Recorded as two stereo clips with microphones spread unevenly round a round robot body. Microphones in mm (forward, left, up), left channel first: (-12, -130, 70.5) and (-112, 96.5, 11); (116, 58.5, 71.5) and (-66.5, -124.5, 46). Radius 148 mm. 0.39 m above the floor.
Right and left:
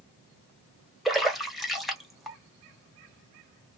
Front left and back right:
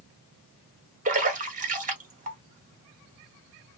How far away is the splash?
About 1.2 m.